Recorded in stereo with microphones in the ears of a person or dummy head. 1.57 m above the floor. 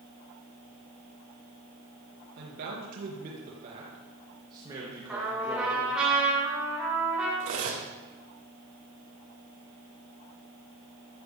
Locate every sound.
2.4 s a man speaking: 55° right (ahead or behind), 2.5 m; by 6.1 s 5° right (ahead or behind), 3 m
5.1 s a trumpet: 5° right (ahead or behind), 7.5 m
7.4 s cutlery clinking: 40° right (ahead or behind), 2 m